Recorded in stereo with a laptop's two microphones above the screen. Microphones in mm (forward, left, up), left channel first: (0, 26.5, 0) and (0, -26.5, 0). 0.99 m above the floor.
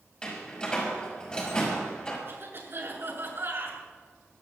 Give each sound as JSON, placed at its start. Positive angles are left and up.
{"t": 0.2, "sound": "a door slam", "side_deg": 20, "distance_m": 5.5}
{"t": 2.3, "sound": "a cough", "side_deg": -45, "distance_m": 8.0}